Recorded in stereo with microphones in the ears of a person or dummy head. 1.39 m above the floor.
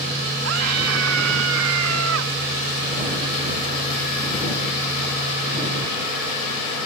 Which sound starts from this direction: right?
A scream, at 0.4 s.